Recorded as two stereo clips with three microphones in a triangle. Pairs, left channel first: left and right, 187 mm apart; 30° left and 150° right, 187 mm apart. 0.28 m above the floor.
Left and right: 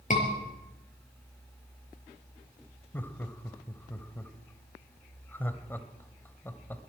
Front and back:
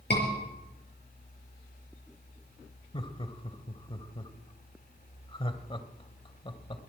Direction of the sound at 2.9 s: 25° left.